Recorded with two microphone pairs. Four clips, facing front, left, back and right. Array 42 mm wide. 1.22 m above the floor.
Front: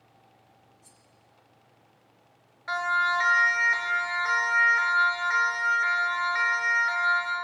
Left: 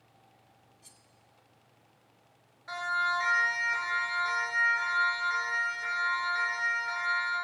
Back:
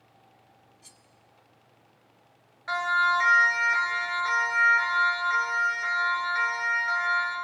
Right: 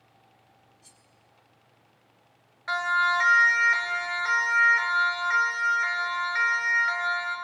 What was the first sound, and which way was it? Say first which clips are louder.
Cutlery clinking: right 1 dB, back 3 dB; 175° right.